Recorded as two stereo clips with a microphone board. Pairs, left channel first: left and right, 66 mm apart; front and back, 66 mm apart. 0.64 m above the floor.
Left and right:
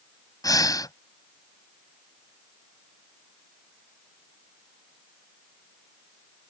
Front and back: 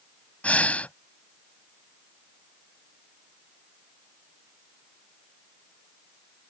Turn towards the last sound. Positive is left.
turn(degrees=70)